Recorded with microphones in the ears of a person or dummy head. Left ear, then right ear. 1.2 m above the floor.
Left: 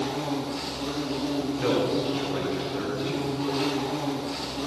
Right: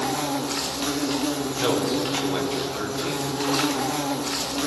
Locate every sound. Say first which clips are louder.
0.0 s an insect: right 4 dB; 55° right (ahead or behind), 1.2 m
1.6 s a man speaking: right 1 dB; 75° right (ahead or behind), 3.5 m